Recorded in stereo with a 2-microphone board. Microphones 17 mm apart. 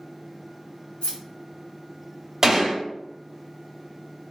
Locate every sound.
1.0 s keys jangling: 70° left (ahead or behind), 1.9 m
2.4 s a gunshot: 30° right (ahead or behind), 1.5 m